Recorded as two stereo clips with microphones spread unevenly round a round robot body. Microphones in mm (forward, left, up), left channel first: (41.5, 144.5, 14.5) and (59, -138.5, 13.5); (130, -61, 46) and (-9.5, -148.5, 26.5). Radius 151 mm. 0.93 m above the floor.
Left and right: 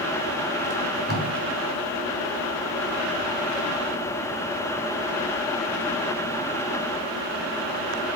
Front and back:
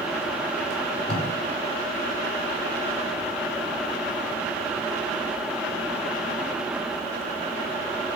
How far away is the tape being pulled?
About 3.5 m.